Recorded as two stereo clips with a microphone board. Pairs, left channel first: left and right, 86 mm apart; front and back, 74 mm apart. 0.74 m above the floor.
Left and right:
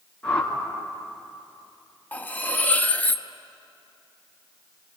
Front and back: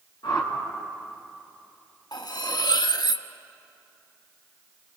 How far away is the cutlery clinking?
About 0.6 m.